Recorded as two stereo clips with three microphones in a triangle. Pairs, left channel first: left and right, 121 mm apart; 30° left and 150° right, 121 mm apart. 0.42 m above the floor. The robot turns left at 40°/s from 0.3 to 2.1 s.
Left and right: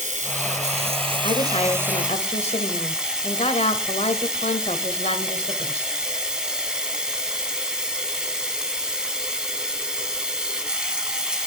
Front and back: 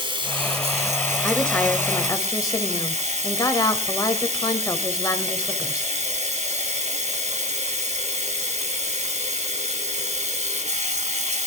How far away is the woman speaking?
About 1.5 m.